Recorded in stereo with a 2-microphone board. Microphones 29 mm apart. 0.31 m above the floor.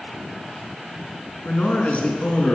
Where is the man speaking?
65° left (ahead or behind), 3 m.